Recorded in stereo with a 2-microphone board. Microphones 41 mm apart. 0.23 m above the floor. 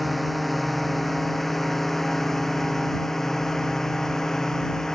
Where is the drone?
Centre (ahead or behind); by 5.0 s 10° left (ahead or behind).